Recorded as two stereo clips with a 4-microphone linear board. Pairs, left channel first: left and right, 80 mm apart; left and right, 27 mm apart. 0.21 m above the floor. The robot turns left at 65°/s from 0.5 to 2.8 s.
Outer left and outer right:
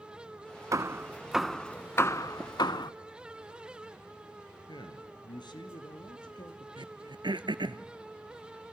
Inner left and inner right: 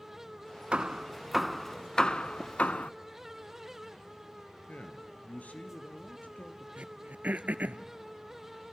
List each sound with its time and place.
0.7 s hammering: 45° right (ahead or behind), 0.5 m; by 2.9 s 65° left (ahead or behind), 0.5 m
2.4 s tapping: 25° right (ahead or behind), 0.6 m; by 2.5 s 30° right (ahead or behind), 0.6 m
4.7 s a man speaking: 65° left (ahead or behind), 3 m
6.8 s throat clearing: 80° right, 0.9 m